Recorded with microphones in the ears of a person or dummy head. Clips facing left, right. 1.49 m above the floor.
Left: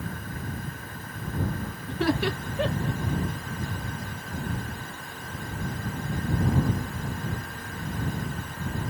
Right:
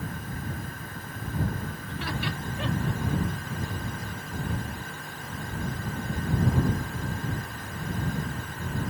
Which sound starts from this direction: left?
Laughter, at 1.9 s.